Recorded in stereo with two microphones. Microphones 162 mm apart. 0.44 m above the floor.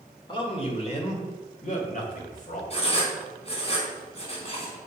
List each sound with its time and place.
0.3 s a man speaking: 30° left (ahead or behind), 1.6 m; by 2.6 s 60° left (ahead or behind), 2.5 m
2.7 s writing: 40° left (ahead or behind), 2.5 m